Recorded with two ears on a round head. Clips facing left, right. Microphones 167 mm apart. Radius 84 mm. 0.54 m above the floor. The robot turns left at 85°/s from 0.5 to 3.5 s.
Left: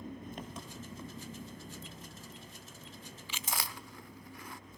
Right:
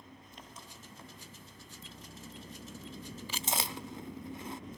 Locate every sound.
0.0 s an engine running: 135° left, 3 m; by 4.8 s 120° right, 3 m
3.3 s chewing: 35° right (ahead or behind), 0.7 m; by 4.6 s 20° right (ahead or behind), 0.7 m